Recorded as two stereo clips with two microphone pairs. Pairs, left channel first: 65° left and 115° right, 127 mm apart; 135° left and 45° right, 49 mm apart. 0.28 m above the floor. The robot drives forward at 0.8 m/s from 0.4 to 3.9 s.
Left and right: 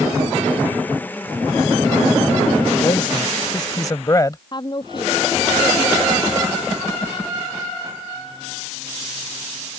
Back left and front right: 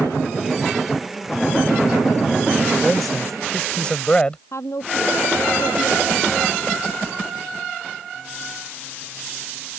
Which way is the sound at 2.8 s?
45° left.